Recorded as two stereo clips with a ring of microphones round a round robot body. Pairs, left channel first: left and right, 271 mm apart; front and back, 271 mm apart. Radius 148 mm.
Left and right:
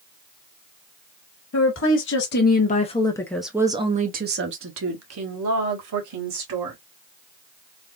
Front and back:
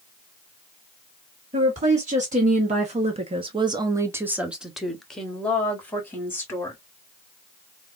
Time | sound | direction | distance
1.5 | a woman speaking | 120° left | 1.4 m